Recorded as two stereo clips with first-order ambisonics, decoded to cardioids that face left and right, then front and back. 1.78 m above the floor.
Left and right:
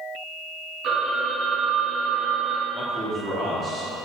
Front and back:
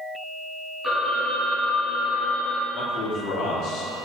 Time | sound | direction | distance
0.8 | a phone ringing | 85° right | 1.3 m
2.7 | a man speaking | 15° right | 1.4 m